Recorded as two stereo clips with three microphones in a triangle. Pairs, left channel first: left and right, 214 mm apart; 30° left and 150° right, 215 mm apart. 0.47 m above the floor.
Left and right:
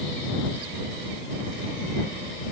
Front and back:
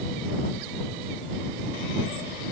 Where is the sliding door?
No sliding door in this recording.